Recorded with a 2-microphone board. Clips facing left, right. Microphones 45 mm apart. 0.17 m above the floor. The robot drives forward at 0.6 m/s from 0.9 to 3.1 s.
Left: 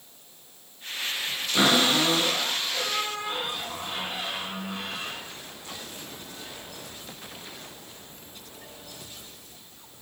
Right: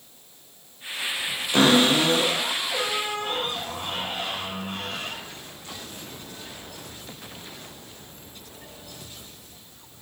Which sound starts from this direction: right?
A cupboard door, at 1.5 s.